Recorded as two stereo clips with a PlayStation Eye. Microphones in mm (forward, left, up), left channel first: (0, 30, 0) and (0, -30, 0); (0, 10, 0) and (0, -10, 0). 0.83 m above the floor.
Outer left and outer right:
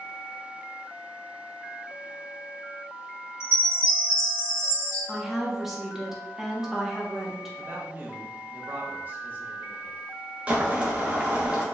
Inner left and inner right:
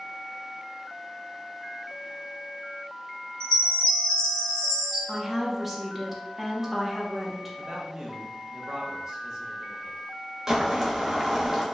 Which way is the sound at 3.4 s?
45° left (ahead or behind).